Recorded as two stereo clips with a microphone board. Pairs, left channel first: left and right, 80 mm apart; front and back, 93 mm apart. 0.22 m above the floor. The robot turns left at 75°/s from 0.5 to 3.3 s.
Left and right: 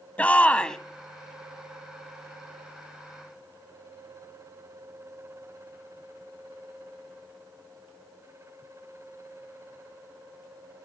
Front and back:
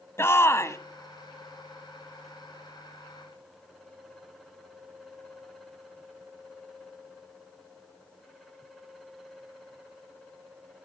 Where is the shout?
30° left, 1.2 m; by 0.8 s 10° left, 1.2 m.